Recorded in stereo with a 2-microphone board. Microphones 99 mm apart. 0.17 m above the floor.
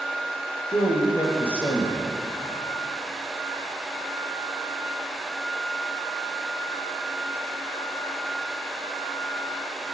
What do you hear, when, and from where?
0.7 s a man speaking: 55° left (ahead or behind), 4.5 m